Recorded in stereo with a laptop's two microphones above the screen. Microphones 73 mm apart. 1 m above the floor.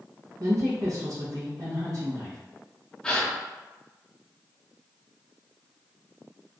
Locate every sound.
0.4 s a woman speaking: 55° right (ahead or behind), 0.7 m
3.0 s a gasp: 10° left (ahead or behind), 0.7 m